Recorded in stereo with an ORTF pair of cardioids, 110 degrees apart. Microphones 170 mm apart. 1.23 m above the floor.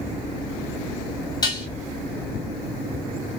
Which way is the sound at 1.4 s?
25° left.